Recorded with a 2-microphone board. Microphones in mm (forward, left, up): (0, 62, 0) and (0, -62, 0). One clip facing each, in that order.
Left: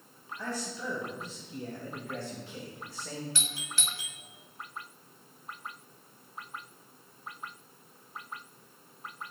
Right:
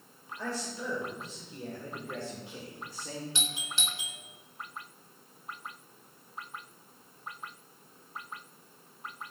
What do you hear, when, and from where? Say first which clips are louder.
0.4 s a man speaking: right 1 dB; 35° right (ahead or behind), 3.5 m; by 3.2 s 15° right (ahead or behind), 2.5 m
3.4 s a doorbell: right 1 dB; 20° right (ahead or behind), 1.1 m